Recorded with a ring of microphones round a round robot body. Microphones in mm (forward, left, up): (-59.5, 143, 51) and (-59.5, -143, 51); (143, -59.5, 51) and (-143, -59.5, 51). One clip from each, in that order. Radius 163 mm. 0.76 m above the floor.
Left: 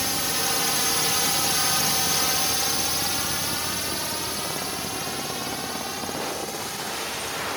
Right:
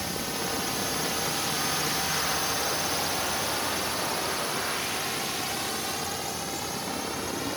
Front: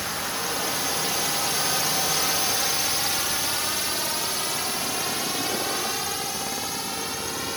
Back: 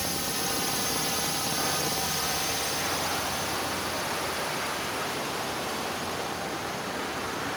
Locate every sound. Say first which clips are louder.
0.0 s a drone: left 6 dB, front 2 dB; 95° left; by 7.6 s 5° right